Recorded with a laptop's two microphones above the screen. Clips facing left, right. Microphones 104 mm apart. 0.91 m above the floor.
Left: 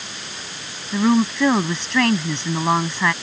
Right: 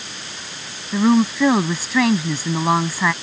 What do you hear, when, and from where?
0.9 s a woman speaking: 5° right (ahead or behind)